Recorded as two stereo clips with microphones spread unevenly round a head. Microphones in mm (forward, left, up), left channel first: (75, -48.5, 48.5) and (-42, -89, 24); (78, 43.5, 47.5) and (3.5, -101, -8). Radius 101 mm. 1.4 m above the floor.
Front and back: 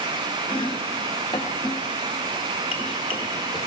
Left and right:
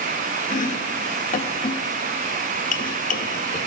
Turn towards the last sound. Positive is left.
turn(degrees=75)